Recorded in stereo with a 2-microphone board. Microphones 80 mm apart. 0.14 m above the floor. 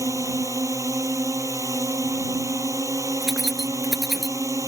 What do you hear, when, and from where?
0.0 s a drone: 45° right (ahead or behind)
3.2 s keys jangling: centre (ahead or behind)